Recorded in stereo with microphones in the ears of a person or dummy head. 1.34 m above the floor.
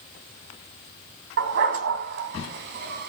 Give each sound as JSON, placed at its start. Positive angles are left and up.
{"t": 1.4, "sound": "a dog barking", "side_deg": -65, "distance_m": 2.5}